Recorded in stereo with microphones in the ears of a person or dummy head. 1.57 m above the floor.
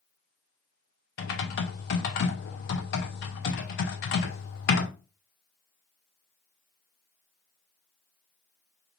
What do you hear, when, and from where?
1.2 s typing on a keyboard: 55° left (ahead or behind), 0.8 m